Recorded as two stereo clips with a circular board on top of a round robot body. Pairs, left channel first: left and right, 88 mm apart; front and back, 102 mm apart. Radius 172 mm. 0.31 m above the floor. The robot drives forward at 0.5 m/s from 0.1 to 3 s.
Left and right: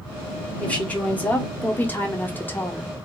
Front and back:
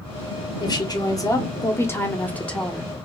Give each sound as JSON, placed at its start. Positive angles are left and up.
{"t": 0.6, "sound": "a woman speaking", "azimuth_deg": 20, "distance_m": 1.9}